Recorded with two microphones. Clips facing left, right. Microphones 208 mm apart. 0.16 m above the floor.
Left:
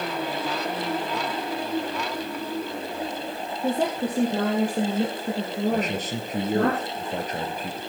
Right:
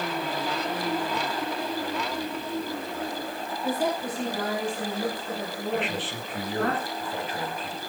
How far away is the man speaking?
About 3 m.